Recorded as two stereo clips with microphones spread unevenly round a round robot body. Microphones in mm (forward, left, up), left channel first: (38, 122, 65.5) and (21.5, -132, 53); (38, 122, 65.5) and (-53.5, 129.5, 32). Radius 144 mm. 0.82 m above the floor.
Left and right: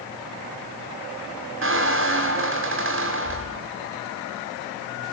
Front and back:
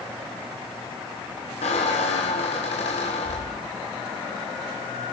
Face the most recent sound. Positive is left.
turn(degrees=-50)